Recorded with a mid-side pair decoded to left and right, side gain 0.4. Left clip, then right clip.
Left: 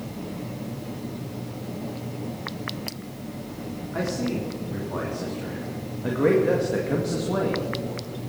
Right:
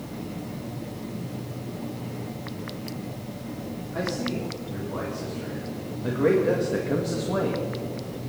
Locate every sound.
3.9 s a man speaking: 35° left, 4 m; by 7.6 s 10° right, 1.9 m